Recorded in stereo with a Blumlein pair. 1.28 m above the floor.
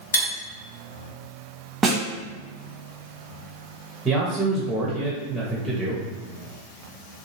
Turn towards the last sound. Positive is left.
turn(degrees=-10)